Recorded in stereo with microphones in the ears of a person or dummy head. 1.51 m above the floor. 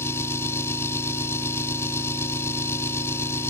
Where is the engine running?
15° left (ahead or behind).